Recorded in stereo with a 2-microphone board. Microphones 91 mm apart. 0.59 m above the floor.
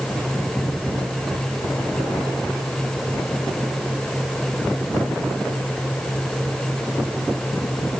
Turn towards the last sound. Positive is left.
No sound to turn to.